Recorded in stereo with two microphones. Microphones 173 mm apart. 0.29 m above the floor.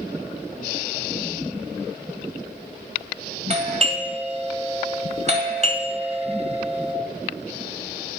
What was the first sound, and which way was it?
A doorbell, 40° right (ahead or behind).